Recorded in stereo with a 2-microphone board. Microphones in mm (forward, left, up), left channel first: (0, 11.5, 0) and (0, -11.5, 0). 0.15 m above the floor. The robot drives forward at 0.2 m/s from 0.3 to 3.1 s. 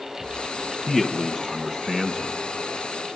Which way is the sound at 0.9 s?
10° right (ahead or behind).